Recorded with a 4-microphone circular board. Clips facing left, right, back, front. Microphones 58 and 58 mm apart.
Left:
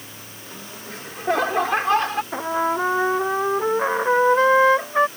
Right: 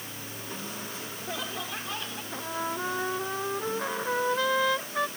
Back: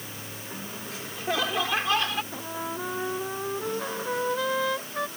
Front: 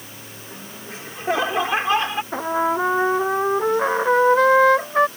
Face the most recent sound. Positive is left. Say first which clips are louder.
# left 8 dB, front 13 dB
turn(degrees=40)